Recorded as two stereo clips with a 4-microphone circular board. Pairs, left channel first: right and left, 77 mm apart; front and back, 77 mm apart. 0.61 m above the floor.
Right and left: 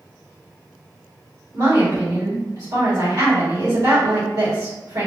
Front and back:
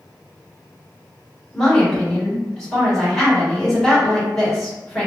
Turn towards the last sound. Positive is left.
turn(degrees=80)